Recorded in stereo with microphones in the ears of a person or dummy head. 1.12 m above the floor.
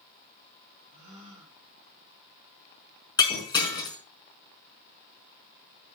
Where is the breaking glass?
25° left (ahead or behind), 5 m.